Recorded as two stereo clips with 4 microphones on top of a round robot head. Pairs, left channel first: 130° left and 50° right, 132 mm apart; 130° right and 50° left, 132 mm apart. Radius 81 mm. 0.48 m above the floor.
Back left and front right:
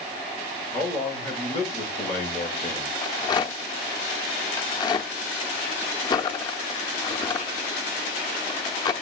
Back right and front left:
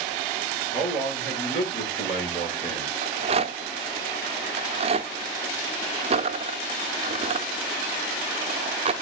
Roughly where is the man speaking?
Behind right.